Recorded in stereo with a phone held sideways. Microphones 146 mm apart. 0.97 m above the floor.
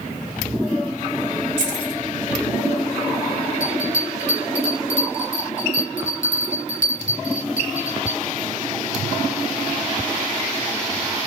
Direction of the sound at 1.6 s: 50° left (ahead or behind).